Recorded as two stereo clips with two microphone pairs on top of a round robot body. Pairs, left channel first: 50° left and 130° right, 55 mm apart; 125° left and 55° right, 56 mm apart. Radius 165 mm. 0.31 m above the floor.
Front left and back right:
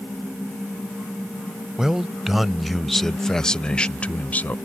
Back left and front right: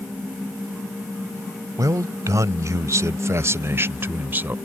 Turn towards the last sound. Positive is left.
turn(degrees=0)